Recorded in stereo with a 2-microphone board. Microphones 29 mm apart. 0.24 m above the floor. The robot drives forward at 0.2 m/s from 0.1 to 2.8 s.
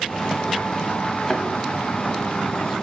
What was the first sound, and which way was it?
A thud, 20° left (ahead or behind).